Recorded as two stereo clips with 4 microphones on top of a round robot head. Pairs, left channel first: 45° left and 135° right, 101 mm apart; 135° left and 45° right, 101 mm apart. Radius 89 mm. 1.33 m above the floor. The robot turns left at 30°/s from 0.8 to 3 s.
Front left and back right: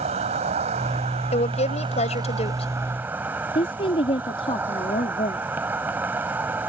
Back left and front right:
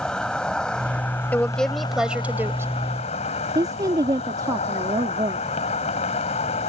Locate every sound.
0.0 s an insect: 145° right; by 6.7 s 150° left
1.3 s a woman speaking: 60° left; by 2.7 s 20° left
3.5 s a woman speaking: 10° left